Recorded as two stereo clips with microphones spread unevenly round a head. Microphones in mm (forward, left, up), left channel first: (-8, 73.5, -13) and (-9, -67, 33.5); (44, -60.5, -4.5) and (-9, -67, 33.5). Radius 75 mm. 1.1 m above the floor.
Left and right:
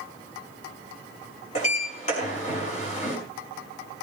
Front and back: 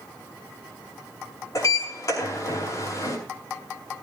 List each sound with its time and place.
1.6 s a sliding door: 50° left, 5.5 m